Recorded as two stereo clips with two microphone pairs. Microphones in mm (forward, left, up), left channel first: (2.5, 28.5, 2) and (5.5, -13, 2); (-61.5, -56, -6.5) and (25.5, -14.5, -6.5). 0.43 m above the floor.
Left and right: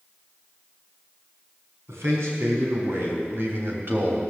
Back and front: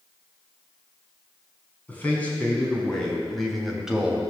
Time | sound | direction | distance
1.9 | a man speaking | 80° right | 4 m